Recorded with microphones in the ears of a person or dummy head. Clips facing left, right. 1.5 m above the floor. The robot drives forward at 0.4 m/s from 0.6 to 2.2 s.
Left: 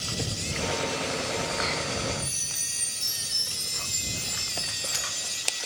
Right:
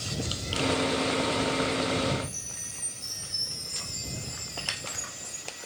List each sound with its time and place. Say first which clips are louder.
2.2 s a chime: right 2 dB; 65° left (ahead or behind), 5.5 m